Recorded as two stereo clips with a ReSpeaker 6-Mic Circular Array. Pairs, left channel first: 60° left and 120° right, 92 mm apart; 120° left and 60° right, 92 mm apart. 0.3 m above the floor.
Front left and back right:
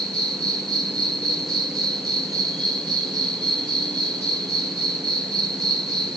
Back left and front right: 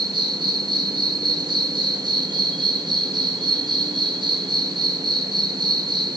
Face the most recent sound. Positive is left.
turn(degrees=-80)